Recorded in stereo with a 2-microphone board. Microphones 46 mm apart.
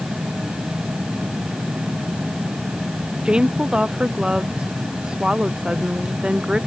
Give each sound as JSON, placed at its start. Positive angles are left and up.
{"t": 3.2, "sound": "a woman speaking", "side_deg": -20}